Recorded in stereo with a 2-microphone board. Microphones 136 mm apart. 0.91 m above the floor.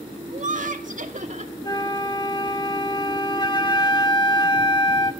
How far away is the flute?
About 1.4 m.